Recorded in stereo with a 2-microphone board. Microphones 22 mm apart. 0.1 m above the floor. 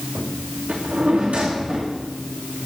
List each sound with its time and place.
0.7 s a drawer: 70° right (ahead or behind), 2.5 m